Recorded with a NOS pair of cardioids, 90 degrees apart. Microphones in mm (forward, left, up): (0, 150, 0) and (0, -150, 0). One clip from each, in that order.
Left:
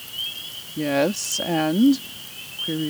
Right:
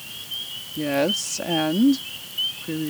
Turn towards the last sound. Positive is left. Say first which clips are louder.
# left 1 dB
turn(degrees=10)